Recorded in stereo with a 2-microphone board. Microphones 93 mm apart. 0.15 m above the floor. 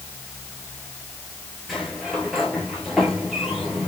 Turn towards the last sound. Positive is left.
turn(degrees=0)  # may be behind; listen again after turning